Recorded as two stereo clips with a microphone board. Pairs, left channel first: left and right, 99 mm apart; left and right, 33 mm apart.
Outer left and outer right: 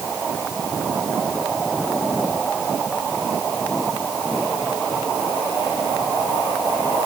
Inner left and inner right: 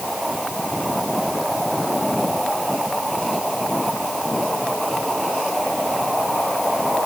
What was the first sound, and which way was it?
Only background noise.